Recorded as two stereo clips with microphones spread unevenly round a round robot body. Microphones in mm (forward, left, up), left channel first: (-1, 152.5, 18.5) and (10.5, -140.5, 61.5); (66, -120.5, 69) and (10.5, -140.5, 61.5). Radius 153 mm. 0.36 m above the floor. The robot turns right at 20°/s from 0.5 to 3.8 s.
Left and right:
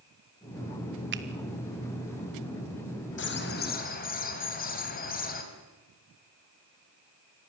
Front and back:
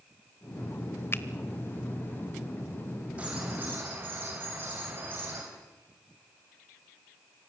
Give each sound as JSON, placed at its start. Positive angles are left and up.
{"t": 1.1, "sound": "a finger snap", "azimuth_deg": -35, "distance_m": 1.2}
{"t": 3.2, "sound": "a bird", "azimuth_deg": 135, "distance_m": 2.0}